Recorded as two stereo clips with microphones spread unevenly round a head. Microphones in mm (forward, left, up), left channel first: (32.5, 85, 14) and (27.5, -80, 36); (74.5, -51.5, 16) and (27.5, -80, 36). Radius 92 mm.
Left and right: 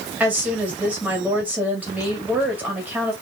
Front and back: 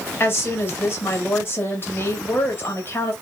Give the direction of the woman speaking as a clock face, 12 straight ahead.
12 o'clock.